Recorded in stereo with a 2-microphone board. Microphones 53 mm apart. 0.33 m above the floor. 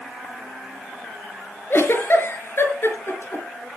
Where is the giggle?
50° left (ahead or behind), 5 m.